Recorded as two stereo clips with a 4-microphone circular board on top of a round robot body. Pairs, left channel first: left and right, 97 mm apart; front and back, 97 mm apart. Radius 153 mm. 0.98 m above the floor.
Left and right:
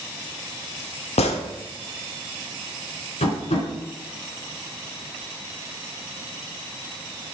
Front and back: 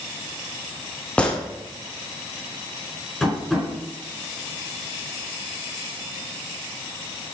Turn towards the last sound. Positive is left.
turn(degrees=95)